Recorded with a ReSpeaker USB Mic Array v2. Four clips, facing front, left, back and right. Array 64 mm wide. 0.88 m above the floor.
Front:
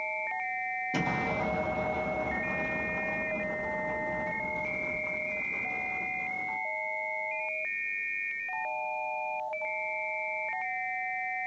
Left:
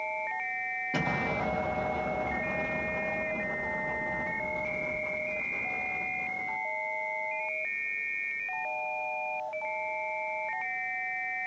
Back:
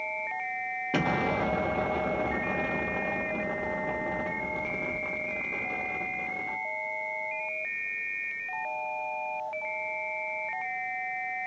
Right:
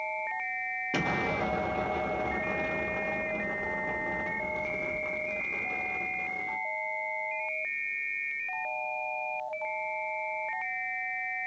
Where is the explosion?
160° right, 0.9 m.